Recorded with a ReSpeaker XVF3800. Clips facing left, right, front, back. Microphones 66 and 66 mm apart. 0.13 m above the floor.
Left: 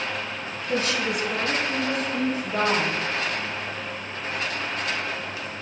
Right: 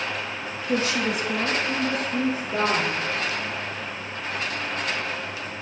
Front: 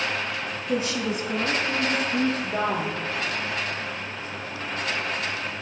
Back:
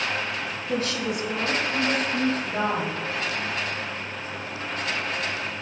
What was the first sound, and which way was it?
A woman speaking, 60° right.